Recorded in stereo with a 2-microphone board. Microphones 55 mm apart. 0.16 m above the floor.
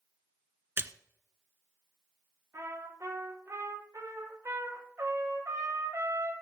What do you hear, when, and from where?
0.8 s a splash: 45° right (ahead or behind), 0.7 m
2.5 s a trumpet: 55° right (ahead or behind), 7.5 m